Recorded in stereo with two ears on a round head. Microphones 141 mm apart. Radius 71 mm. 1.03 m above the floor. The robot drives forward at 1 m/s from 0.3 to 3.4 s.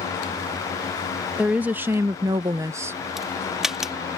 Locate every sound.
1.4 s a woman speaking: 10° right (ahead or behind); by 3.0 s 15° right (ahead or behind)
3.2 s a crack: 5° right (ahead or behind)